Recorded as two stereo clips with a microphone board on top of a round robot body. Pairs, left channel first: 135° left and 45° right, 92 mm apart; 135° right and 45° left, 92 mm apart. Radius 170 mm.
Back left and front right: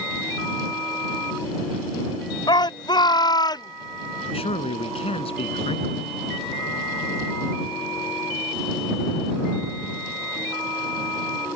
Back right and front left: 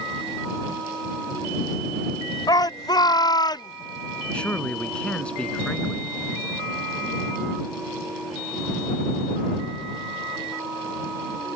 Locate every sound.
2.5 s a shout: straight behind
4.3 s a man speaking: 145° left